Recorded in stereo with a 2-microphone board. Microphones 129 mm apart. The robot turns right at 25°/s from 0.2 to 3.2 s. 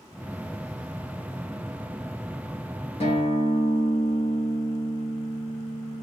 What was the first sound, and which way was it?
A guitar, 50° left (ahead or behind).